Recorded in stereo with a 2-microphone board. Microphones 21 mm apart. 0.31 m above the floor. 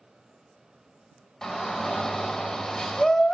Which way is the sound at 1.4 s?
35° left (ahead or behind).